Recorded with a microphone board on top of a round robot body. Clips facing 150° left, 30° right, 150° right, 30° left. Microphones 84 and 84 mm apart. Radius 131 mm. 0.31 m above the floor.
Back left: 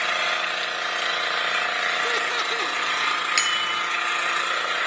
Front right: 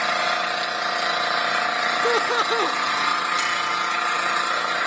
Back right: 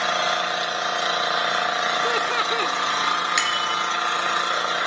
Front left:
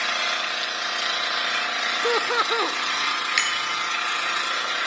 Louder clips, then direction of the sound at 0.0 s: Front right 3 dB, back right 5 dB; 100° right.